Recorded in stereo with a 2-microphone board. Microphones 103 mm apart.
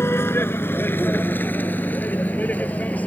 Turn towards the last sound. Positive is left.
turn(degrees=15)  # may be behind; listen again after turning